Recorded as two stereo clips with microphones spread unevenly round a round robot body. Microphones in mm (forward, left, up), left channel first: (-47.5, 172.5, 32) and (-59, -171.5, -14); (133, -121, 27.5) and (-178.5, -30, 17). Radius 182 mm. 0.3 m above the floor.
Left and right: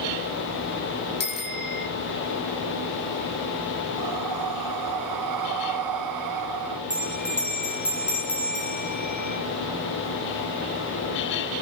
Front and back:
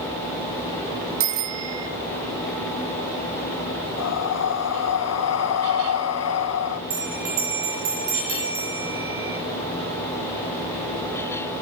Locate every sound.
1.2 s a bicycle bell: 150° left, 3.5 m
4.0 s breathing: 60° right, 1.3 m
6.9 s a bell: 175° left, 6 m